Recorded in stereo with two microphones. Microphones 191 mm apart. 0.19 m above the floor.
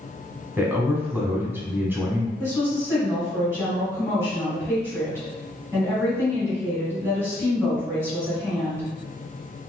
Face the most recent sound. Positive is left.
turn(degrees=-15)  # may be behind; listen again after turning